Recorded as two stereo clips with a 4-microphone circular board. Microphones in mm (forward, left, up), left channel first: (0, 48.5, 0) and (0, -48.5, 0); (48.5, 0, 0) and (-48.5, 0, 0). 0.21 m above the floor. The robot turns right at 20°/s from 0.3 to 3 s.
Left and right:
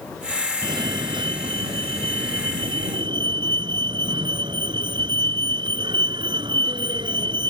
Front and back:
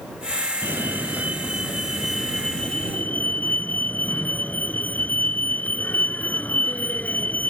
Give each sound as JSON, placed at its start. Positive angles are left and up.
{"t": 0.6, "sound": "a fire alarm", "azimuth_deg": -120}